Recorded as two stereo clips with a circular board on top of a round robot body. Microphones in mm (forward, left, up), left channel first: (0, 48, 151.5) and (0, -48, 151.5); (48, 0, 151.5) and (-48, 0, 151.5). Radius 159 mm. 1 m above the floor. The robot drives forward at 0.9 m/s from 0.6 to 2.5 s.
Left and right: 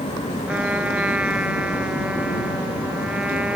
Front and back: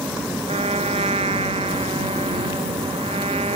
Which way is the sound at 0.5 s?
170° right.